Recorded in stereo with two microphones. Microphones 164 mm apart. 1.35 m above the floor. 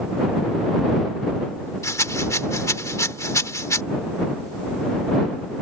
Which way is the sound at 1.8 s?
20° left (ahead or behind).